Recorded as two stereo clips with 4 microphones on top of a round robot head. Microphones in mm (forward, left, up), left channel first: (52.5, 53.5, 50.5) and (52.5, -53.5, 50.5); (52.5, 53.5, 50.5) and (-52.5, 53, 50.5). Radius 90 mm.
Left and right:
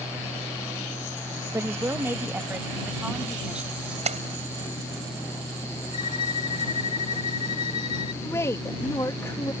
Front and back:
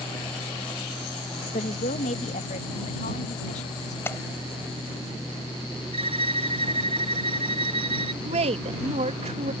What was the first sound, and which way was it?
A woman speaking, 25° right.